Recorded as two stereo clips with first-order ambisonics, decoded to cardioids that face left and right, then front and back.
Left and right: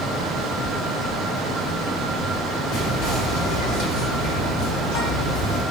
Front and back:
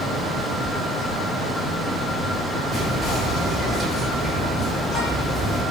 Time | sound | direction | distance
2.7 | whispering | 90° left | 1.6 m